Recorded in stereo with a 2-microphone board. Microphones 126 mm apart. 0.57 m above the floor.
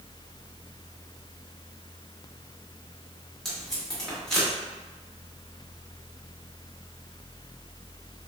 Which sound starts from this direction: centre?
Tape being pulled, at 3.5 s.